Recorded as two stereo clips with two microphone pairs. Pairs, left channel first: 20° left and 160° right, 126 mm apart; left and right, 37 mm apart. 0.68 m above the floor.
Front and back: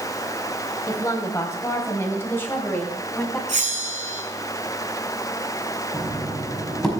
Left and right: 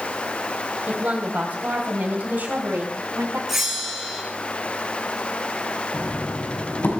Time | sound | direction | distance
0.9 | a woman speaking | 45° right | 3.5 m
3.5 | a bell | 175° right | 3.5 m
5.9 | knocking | 105° left | 5 m